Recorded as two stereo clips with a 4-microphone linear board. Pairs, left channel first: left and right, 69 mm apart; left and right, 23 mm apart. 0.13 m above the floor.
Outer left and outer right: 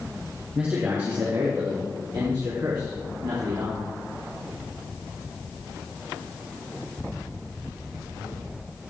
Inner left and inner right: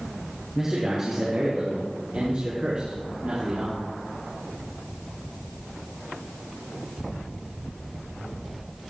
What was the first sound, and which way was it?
A man speaking, 25° right (ahead or behind).